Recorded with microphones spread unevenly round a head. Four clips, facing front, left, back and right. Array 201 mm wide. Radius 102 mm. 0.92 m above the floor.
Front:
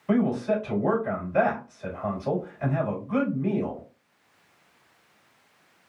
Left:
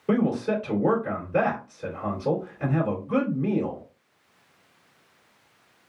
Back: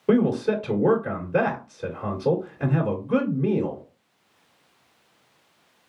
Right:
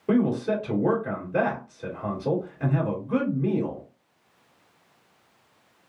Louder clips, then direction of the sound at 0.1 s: Right 1 dB, back 3 dB; 170° right.